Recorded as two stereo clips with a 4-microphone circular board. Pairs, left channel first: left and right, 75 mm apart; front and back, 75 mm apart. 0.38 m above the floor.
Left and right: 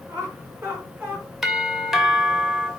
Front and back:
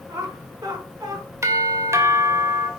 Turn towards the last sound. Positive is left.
turn(degrees=-175)